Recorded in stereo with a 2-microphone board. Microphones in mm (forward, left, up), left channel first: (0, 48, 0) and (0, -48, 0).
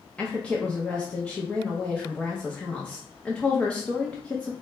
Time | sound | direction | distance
0.2 | a woman speaking | 10° left (ahead or behind) | 0.6 m